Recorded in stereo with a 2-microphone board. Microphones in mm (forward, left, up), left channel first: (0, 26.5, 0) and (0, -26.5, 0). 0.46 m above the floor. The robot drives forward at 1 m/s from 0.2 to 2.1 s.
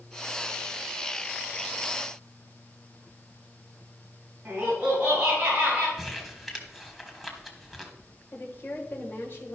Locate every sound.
4.5 s laughter: 20° right (ahead or behind), 4 m
6.0 s crumpling: centre (ahead or behind), 1.4 m
8.3 s a woman speaking: 35° left (ahead or behind), 2 m